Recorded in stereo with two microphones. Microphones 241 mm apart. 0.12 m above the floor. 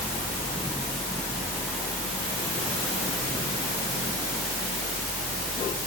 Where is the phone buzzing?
I don't hear a phone buzzing.